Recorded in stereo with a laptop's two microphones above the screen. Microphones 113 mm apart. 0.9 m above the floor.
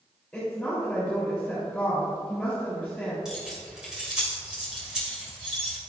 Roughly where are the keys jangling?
Centre.